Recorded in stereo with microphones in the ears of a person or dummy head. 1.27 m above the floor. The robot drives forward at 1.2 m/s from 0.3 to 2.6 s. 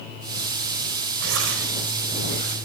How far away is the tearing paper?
About 3 m.